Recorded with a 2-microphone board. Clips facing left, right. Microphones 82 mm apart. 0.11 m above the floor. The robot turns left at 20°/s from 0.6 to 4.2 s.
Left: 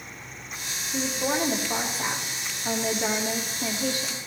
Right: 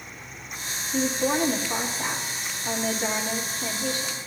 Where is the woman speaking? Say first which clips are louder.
Right 3 dB; 170° left, 4.5 m; by 4.2 s 105° left, 4.5 m.